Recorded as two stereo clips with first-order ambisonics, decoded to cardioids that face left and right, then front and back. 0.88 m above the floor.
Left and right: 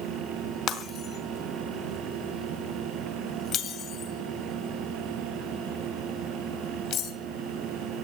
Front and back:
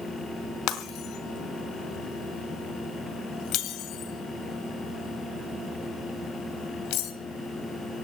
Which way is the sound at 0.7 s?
40° left.